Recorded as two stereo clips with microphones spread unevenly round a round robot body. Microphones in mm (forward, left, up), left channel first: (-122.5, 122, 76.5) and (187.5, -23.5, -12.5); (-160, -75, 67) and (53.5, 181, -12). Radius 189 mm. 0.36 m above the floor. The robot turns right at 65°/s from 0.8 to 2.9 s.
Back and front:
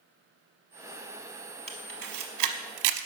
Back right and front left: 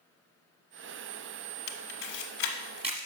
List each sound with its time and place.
1.7 s a camera shutter: 115° right, 0.7 m; by 3.1 s 35° right, 0.7 m